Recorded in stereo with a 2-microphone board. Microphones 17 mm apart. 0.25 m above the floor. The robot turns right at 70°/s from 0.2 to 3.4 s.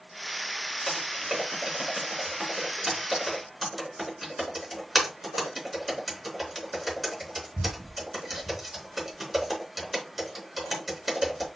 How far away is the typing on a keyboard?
About 3.5 m.